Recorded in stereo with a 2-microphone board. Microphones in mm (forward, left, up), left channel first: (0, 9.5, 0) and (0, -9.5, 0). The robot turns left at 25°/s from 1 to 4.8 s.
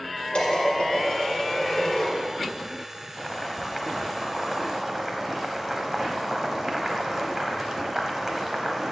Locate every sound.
0.3 s dishes clattering: 60° left (ahead or behind), 2 m; by 2.1 s 35° left (ahead or behind), 2 m
3.2 s boiling: 15° left, 0.9 m; by 8.9 s 25° right, 0.9 m